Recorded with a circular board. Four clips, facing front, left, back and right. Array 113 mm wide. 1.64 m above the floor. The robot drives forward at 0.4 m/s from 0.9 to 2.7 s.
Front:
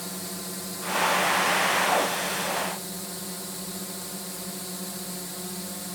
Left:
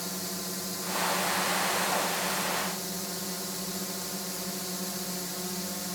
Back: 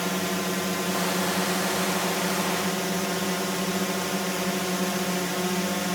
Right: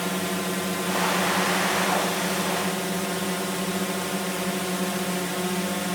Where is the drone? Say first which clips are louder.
Right 11 dB, back 10 dB; 130° right; by 6.0 s 135° right.